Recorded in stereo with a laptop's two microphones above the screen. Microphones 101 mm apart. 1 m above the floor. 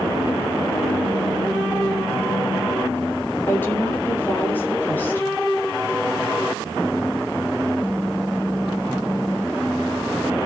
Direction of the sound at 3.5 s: 20° left (ahead or behind).